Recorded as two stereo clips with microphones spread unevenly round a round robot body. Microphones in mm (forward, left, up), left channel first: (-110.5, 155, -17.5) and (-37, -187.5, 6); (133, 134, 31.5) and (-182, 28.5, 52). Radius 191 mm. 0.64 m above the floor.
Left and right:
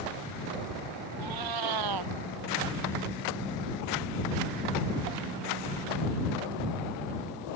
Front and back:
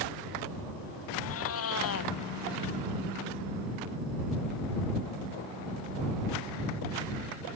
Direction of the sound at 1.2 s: 40° right.